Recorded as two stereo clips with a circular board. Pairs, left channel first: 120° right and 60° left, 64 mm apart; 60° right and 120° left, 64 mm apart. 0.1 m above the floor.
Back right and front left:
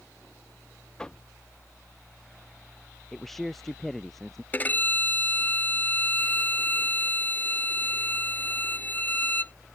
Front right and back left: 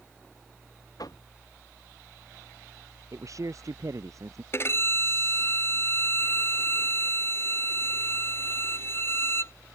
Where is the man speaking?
155° left.